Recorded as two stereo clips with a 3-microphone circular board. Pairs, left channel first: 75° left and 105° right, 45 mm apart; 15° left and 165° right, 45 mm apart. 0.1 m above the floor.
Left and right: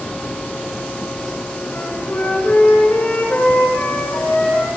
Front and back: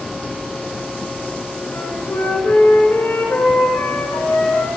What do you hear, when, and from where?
1.7 s a flute: 30° left, 10 m